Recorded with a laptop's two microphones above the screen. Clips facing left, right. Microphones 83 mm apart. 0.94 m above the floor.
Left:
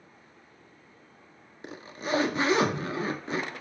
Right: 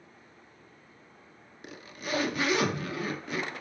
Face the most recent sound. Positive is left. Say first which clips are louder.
# left 4 dB
turn(degrees=30)  # may be behind; listen again after turning